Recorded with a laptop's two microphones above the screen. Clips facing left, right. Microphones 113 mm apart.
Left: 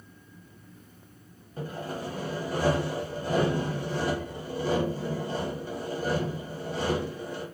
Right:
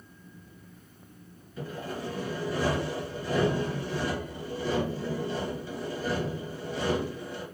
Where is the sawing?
45° left (ahead or behind), 1.3 m.